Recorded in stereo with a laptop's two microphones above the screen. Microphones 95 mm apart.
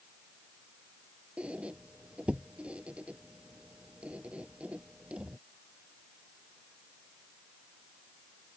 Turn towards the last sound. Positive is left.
turn(degrees=-15)  # may be behind; listen again after turning